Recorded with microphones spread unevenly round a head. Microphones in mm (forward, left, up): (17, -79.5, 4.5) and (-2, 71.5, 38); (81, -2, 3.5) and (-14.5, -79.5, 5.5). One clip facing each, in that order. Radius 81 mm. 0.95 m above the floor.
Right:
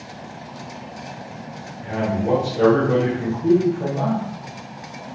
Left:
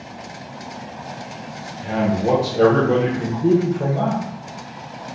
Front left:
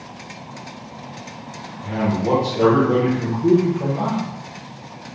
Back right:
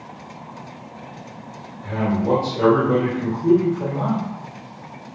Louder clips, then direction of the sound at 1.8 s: Left 3 dB, even; 115° left.